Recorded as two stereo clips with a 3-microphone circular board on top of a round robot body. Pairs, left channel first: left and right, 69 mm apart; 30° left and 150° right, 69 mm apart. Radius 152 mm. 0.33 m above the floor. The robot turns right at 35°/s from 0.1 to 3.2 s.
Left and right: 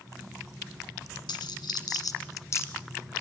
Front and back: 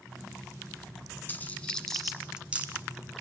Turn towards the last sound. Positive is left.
turn(degrees=160)